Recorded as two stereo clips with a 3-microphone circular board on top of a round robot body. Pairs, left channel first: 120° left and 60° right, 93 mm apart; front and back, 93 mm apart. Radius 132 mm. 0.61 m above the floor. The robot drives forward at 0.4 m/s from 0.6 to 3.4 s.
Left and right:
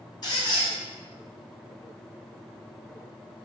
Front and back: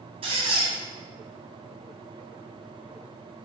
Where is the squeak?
165° left, 0.9 m.